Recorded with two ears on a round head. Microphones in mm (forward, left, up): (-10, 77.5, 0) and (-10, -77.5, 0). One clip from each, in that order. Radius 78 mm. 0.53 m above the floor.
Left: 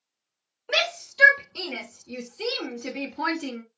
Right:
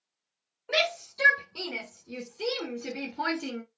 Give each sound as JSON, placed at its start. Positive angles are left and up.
{"t": 0.7, "sound": "a shout", "side_deg": 20, "distance_m": 1.8}